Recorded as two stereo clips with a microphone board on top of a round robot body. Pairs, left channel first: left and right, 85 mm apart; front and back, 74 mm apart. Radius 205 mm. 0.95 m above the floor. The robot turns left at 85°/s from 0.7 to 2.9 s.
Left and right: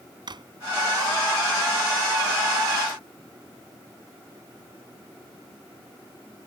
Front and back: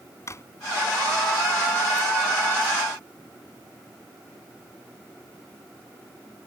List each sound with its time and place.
0.3 s a drawer: 55° right